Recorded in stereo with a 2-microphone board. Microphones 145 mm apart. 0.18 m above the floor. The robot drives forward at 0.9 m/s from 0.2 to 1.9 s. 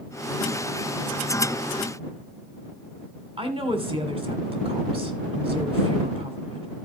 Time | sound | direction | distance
3.4 | a woman speaking | 40° right (ahead or behind) | 1.9 m